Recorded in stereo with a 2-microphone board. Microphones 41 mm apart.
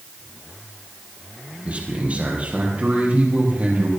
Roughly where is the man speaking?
Right.